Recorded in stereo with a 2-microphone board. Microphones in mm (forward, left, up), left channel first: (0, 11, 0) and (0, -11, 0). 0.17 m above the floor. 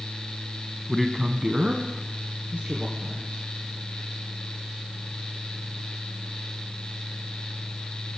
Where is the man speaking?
5° left (ahead or behind), 1.0 m; by 3.5 s 65° right (ahead or behind), 3 m.